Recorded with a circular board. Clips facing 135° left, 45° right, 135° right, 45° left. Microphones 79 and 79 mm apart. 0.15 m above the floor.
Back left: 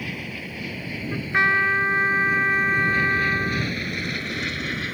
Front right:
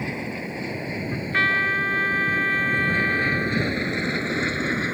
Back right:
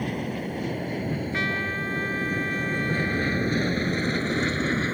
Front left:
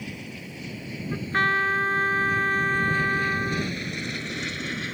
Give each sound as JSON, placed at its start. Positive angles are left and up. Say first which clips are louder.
{"t": 0.0, "sound": "an aircraft", "louder": "front right 4 dB, back right 9 dB", "azimuth_deg": -105}
{"t": 1.1, "sound": "a trumpet", "louder": "back left 2 dB, front left 8 dB", "azimuth_deg": 70}